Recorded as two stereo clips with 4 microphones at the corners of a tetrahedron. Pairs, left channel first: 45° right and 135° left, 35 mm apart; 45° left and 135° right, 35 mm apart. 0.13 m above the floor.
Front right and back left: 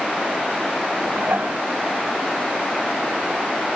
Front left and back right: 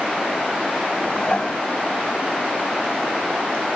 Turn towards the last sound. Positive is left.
turn(degrees=110)